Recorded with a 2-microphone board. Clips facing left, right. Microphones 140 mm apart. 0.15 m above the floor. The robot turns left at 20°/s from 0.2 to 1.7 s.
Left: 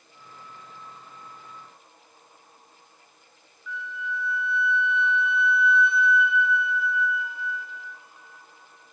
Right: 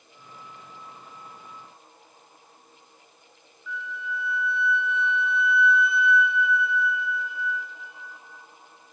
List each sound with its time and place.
3.7 s a flute: centre (ahead or behind), 0.8 m